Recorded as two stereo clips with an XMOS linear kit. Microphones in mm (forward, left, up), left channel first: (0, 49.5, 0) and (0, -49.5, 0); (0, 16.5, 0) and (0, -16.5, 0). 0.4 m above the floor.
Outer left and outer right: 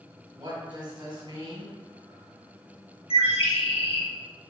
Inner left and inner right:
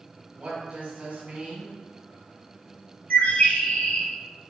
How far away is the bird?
About 0.6 m.